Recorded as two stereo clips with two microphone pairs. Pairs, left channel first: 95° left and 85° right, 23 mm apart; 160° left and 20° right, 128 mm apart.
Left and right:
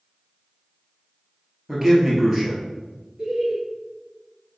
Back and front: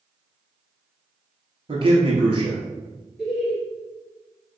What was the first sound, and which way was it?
A man speaking, 5° right.